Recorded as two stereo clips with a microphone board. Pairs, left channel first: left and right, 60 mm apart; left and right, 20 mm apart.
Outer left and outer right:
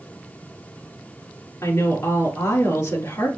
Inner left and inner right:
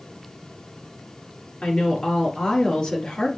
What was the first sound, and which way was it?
A woman speaking, 60° left (ahead or behind).